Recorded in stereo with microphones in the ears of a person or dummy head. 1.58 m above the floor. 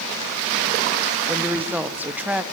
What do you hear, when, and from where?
1.3 s a woman speaking: 5° right (ahead or behind), 1.3 m